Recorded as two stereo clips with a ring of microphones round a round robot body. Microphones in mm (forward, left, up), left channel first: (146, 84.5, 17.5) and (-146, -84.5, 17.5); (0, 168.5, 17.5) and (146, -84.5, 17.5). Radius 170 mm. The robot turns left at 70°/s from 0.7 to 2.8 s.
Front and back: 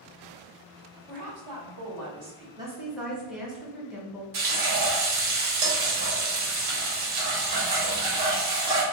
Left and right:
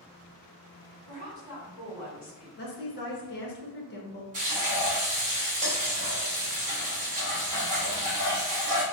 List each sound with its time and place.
1.1 s a woman speaking: 85° right, 1.8 m; by 2.5 s straight behind, 1.8 m
2.6 s a woman speaking: 140° left, 0.8 m; by 4.2 s 125° left, 0.8 m
4.3 s frying: 130° right, 1.1 m